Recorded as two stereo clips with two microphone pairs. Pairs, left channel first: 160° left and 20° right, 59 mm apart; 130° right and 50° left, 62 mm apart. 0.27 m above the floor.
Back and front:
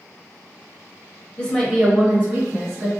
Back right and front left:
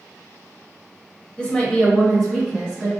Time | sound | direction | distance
1.4 | a woman speaking | 165° right | 0.9 m